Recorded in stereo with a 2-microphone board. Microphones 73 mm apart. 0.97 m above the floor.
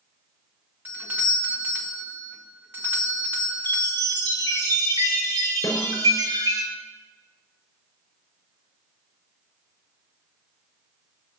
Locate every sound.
0.8 s a doorbell: 25° right (ahead or behind), 1.7 m
3.6 s a chime: 70° right (ahead or behind), 4 m
5.6 s a snare drum: 50° left (ahead or behind), 4.5 m